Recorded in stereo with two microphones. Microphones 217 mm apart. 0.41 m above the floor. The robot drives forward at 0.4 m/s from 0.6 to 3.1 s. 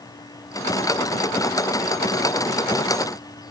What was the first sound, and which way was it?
Only background noise.